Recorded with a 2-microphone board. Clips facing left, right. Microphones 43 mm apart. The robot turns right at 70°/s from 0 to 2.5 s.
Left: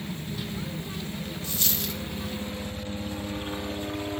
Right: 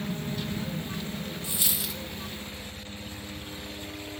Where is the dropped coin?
15° right (ahead or behind); by 2.0 s centre (ahead or behind).